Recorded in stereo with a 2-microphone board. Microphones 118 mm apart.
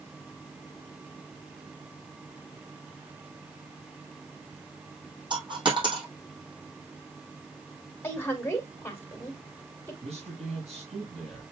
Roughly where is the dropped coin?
Right.